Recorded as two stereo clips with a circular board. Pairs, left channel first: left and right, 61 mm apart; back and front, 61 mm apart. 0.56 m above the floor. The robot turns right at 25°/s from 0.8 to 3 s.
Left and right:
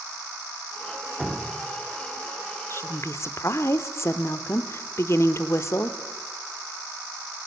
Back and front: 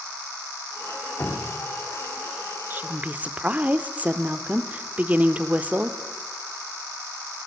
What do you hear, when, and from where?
1.2 s dripping: straight behind, 1.4 m; by 1.6 s 165° right, 1.4 m
2.7 s a woman speaking: 55° left, 1.1 m; by 6.0 s 60° left, 1.1 m